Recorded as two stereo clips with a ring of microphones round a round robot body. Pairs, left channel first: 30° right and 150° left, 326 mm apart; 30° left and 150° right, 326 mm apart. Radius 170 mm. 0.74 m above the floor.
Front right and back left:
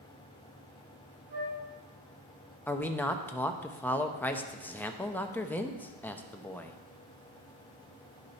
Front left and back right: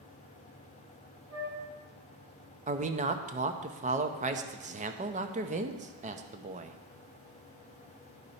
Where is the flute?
155° left, 4.5 m.